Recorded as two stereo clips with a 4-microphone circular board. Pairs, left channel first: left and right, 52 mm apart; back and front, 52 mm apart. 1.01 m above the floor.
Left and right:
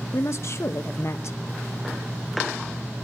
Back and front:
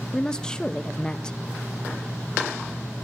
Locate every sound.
0.1 s a woman speaking: 110° left, 1.1 m